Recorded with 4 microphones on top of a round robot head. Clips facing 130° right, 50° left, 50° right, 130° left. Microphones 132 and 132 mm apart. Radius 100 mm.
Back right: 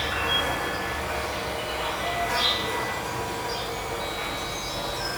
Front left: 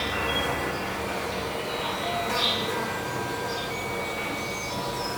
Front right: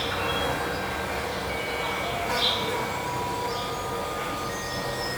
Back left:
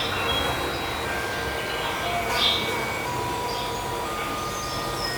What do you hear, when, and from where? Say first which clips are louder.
0.0 s an insect: even, back left 1 dB; 70° left, 1.0 m